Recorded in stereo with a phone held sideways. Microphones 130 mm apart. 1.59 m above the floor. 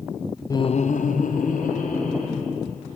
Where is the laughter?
25° left (ahead or behind), 0.5 m; by 2.5 s 80° left, 3 m.